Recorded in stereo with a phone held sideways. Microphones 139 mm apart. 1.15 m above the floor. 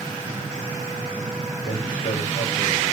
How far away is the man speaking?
About 7.5 m.